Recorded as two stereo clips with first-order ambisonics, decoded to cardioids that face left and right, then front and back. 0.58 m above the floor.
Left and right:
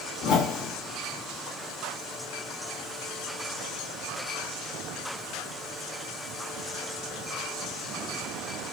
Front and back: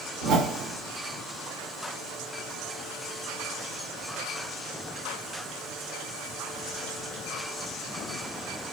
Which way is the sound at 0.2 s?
135° left.